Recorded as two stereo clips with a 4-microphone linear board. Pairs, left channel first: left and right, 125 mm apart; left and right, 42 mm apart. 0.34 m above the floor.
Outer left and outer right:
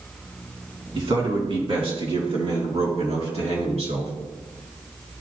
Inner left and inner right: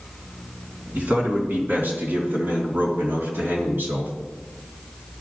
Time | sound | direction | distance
0.9 | a man speaking | 45° right (ahead or behind) | 3.5 m